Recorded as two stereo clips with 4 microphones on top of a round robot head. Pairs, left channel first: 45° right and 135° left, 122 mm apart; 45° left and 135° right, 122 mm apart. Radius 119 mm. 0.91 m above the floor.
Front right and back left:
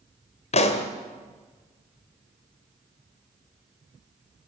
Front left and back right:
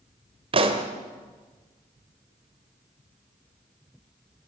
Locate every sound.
0.5 s a pop: 85° right, 1.8 m